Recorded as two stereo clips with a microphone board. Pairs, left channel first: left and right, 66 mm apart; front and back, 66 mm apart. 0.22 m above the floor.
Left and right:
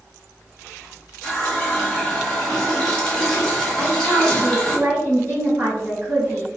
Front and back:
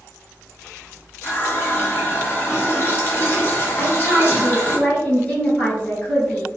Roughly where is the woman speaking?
Ahead right.